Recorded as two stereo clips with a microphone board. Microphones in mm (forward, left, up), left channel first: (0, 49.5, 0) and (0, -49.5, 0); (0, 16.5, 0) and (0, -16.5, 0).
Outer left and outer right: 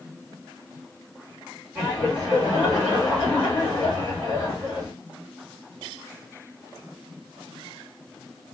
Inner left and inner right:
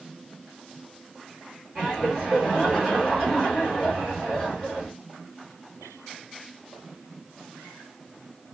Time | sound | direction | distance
1.8 | laughter | 5° right (ahead or behind) | 2.0 m